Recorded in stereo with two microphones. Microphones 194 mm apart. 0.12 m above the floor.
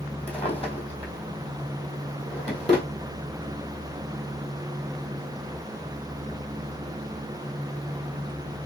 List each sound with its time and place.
0.3 s a drawer: 35° left (ahead or behind), 1.4 m